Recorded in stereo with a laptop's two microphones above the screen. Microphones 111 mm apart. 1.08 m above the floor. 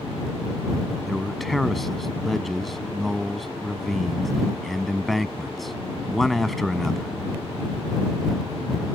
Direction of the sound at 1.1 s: Centre (ahead or behind).